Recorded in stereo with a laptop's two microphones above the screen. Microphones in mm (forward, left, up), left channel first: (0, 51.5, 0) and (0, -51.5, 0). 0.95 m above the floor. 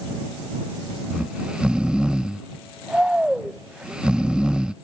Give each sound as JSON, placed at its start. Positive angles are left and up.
{"t": 1.1, "sound": "snoring", "side_deg": -10}